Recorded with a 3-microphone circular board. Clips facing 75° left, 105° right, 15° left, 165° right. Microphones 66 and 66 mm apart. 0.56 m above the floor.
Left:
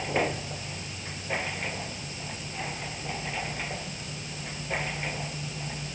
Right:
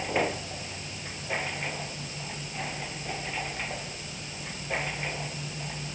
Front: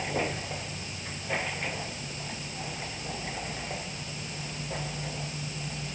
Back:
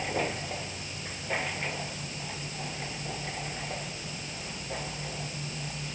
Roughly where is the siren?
No siren in this recording.